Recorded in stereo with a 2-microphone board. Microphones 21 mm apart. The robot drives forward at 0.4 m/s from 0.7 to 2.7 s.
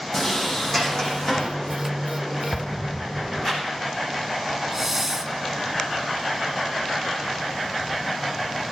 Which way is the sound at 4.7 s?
10° right (ahead or behind).